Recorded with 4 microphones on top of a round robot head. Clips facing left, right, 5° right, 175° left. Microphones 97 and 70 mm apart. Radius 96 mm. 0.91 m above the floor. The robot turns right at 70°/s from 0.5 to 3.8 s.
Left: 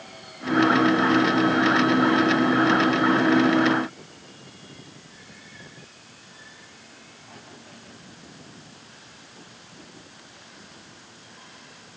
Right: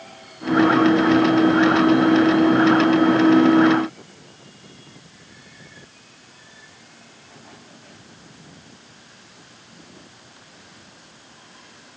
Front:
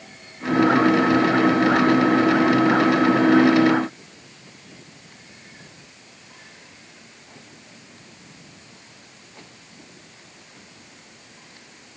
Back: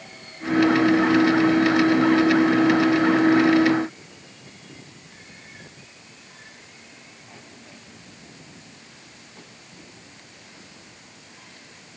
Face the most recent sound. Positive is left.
No sound to turn to.